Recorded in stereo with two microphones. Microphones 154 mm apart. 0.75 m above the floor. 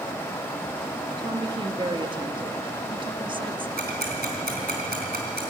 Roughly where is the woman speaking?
Right.